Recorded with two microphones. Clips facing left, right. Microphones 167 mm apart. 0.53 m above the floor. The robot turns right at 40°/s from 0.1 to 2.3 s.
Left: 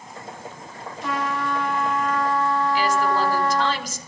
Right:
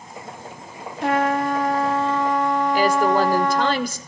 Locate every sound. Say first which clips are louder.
1.0 s a trumpet: right 7 dB; 70° right, 1.7 m; by 3.7 s 20° right, 1.7 m
2.7 s a woman speaking: right 4 dB; 55° right (ahead or behind), 1.8 m